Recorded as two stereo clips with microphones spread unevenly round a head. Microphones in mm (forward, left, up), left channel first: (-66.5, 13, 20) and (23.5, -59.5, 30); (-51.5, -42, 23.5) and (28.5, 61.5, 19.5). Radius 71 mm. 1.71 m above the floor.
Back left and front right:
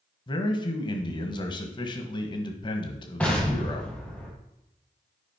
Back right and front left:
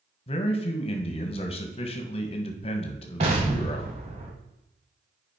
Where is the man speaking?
170° right, 1.4 m.